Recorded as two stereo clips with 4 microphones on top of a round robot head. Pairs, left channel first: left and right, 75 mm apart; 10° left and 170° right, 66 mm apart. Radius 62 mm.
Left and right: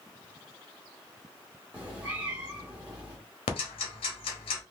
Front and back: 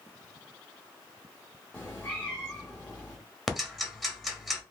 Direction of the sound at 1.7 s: 55° right.